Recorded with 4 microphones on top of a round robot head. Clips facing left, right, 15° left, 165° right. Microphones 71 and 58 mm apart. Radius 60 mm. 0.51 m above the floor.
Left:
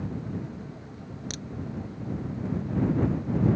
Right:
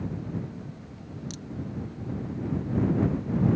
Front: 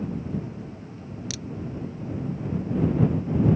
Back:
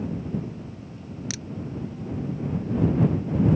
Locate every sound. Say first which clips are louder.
1.3 s a crack: left 1 dB, back 1 dB; 130° left